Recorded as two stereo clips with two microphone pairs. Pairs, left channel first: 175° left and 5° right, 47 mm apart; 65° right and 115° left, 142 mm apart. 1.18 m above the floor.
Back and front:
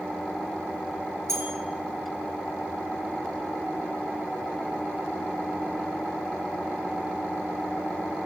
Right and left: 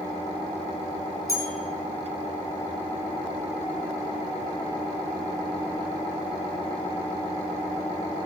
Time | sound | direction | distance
1.3 | a bell | straight ahead | 5 m